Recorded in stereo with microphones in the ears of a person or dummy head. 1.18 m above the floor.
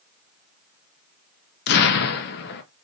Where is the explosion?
50° left (ahead or behind), 0.5 m.